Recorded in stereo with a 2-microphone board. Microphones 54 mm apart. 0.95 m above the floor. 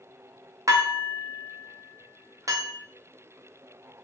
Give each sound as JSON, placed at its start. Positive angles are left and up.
{"t": 0.7, "sound": "dishes clattering", "side_deg": -85, "distance_m": 0.7}